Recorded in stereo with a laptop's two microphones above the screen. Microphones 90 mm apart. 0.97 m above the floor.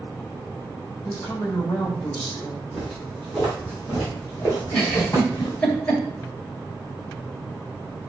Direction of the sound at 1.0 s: 25° left (ahead or behind).